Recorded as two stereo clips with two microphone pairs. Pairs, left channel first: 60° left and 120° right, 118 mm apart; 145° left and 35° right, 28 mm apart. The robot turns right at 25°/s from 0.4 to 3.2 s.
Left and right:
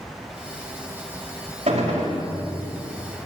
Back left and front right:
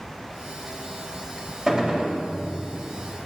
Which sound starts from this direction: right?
A gunshot, at 1.7 s.